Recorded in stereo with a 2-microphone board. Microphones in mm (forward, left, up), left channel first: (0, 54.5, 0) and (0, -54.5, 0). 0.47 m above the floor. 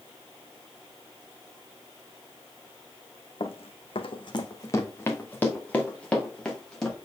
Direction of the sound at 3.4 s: 60° left (ahead or behind).